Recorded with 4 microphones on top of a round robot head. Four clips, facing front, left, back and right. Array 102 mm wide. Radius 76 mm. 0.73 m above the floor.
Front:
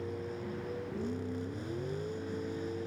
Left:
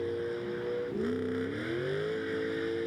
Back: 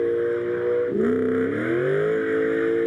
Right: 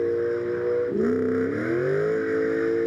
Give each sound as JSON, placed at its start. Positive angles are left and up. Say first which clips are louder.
{"t": 0.0, "sound": "a vehicle", "louder": "right 10 dB, back 18 dB", "azimuth_deg": -150}